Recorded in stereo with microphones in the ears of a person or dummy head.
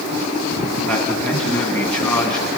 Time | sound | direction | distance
0.9 | a man speaking | 15° left (ahead or behind) | 2.0 m